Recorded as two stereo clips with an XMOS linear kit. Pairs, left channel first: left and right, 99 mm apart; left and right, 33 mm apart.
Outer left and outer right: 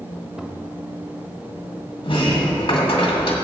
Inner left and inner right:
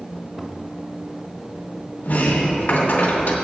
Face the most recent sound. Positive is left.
turn(degrees=60)  # may be behind; listen again after turning